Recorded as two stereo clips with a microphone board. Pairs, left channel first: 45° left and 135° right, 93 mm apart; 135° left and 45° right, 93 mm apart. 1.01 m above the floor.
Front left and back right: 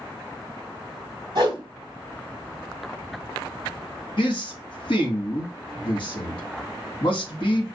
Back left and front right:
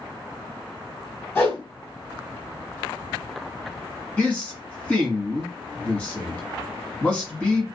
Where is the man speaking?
65° left, 1.3 m.